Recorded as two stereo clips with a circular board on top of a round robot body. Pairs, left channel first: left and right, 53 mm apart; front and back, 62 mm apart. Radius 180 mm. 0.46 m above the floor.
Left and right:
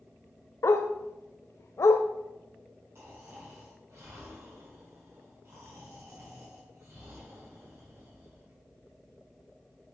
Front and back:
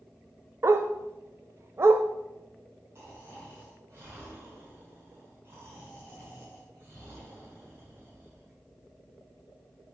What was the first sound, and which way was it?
A dog barking, 130° left.